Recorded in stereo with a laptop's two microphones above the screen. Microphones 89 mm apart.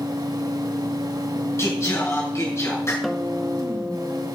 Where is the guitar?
Centre (ahead or behind), 0.8 m.